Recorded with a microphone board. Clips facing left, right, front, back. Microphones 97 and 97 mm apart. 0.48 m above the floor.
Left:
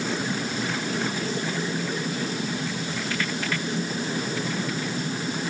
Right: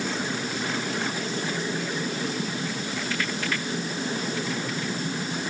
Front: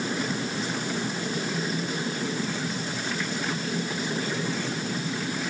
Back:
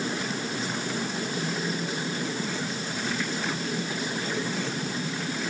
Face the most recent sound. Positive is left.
No sound to turn to.